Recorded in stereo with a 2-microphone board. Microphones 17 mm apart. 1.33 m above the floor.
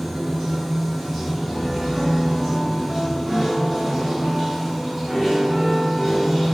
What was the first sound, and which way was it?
Running water, 5° right (ahead or behind).